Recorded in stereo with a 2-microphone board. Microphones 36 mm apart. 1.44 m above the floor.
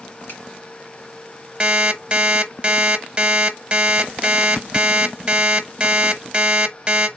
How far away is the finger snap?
About 2.5 m.